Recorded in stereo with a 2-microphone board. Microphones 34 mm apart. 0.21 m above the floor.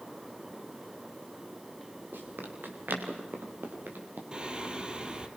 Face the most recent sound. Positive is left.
turn(degrees=-25)  # may be behind; listen again after turning